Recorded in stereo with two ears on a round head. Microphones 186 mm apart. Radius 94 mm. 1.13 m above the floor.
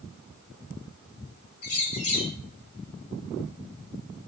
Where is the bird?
80° left, 1.7 m.